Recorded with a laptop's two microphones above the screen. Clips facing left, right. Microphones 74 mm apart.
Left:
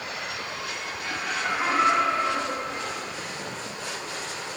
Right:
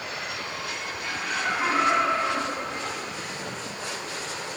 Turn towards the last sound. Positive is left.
turn(degrees=-30)  # may be behind; listen again after turning